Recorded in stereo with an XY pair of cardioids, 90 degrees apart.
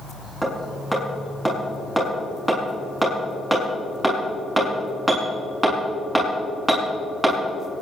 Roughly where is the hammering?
Ahead.